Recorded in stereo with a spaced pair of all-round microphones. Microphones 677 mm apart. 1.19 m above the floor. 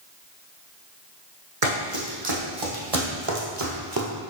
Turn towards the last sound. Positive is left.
turn(degrees=-30)  # may be behind; listen again after turning